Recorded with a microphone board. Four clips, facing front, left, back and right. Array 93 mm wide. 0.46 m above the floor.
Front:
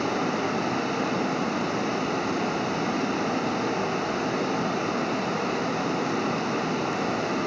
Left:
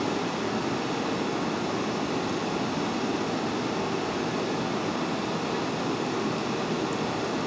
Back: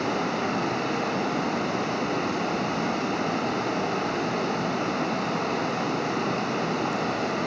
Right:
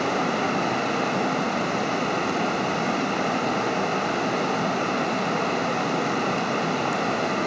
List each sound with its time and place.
0.0 s running water: 95° right, 2.5 m